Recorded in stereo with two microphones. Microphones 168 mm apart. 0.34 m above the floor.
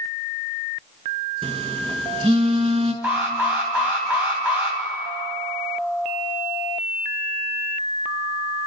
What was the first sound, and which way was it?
A phone buzzing, 35° right (ahead or behind).